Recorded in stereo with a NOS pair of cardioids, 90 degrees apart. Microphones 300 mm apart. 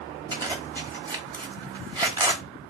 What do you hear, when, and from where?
0.3 s a zipper: 15° right, 1.1 m